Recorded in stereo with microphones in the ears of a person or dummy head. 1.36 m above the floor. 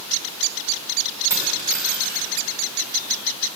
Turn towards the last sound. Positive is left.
turn(degrees=-10)  # may be behind; listen again after turning